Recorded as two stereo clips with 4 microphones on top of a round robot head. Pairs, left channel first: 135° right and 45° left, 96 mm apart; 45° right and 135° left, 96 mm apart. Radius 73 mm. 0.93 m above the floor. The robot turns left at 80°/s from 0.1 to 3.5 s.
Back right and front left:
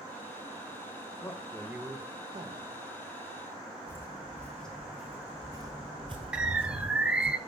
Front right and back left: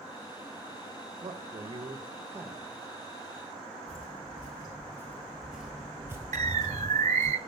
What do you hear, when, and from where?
1.2 s a man speaking: 170° left, 1.4 m; by 2.8 s 45° left, 1.4 m
3.9 s footsteps: 70° right, 1.2 m; by 7.3 s 85° left, 1.6 m
6.3 s a bird: 130° left, 0.5 m